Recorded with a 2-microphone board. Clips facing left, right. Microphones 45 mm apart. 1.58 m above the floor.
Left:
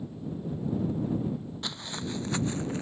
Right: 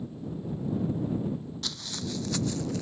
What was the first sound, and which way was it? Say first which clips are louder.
Footsteps: left 1 dB; 20° left (ahead or behind).